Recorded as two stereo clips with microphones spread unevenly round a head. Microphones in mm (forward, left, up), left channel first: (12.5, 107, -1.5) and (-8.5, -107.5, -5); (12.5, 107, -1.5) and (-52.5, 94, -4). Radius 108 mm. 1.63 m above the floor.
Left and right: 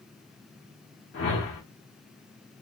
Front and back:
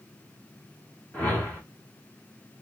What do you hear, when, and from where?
1.1 s a whoosh: 75° left, 1.6 m